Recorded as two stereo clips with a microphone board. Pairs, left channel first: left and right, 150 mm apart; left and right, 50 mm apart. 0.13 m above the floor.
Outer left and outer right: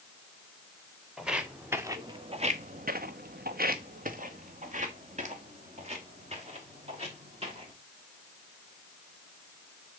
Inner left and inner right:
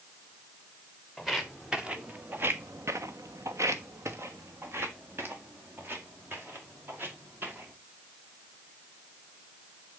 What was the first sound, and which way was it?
Footsteps, 5° right (ahead or behind).